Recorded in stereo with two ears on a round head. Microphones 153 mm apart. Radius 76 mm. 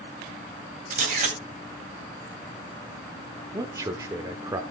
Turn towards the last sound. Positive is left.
turn(degrees=-20)  # may be behind; listen again after turning